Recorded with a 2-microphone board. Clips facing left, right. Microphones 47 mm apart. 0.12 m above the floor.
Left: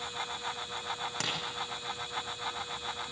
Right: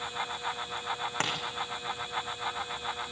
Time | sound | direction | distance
1.2 | tapping | 40° right (ahead or behind) | 4.5 m